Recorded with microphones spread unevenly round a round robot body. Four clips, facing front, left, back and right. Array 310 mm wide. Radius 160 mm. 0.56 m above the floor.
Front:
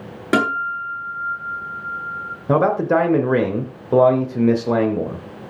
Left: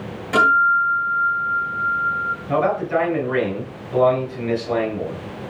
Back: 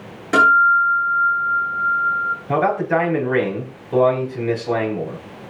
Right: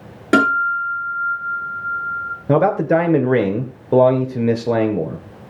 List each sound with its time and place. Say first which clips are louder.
0.3 s a guitar: even, back 7 dB; 55° right, 9 m
2.5 s a man speaking: right 5 dB, front 3 dB; 55° right, 2 m